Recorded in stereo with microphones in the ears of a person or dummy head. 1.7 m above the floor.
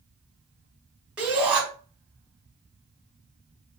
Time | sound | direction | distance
1.2 | a shout | 10° right (ahead or behind) | 1.2 m